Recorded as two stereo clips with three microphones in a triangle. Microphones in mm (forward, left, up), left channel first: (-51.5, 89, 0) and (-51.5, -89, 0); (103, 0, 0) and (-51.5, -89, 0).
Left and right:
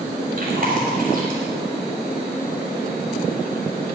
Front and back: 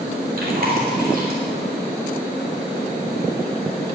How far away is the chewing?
About 3 m.